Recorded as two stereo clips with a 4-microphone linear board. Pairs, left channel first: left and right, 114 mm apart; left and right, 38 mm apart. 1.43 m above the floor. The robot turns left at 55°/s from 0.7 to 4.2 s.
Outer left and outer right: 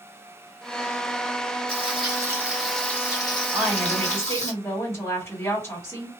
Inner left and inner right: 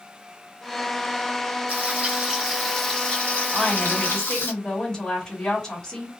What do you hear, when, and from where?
1.7 s frying: 125° right, 1.1 m; by 4.5 s 95° left, 1.1 m
3.5 s a woman speaking: 165° right, 1.5 m; by 6.1 s 160° left, 1.5 m